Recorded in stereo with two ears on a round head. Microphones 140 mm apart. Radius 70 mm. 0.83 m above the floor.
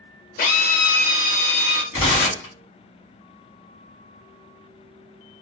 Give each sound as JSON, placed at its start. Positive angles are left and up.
{"t": 0.4, "sound": "a drill", "side_deg": 60, "distance_m": 1.3}
{"t": 1.9, "sound": "tearing paper", "side_deg": 35, "distance_m": 1.5}